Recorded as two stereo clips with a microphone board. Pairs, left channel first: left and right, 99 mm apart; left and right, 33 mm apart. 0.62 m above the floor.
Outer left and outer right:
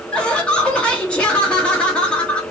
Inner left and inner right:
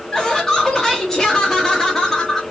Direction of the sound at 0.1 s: 10° left (ahead or behind).